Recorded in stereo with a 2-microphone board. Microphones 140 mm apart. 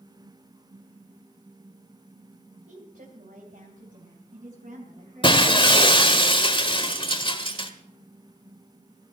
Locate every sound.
2.7 s a woman speaking: 75° right (ahead or behind), 2.5 m; by 6.2 s 70° right (ahead or behind), 4.5 m
5.2 s breaking glass: 35° left (ahead or behind), 1.3 m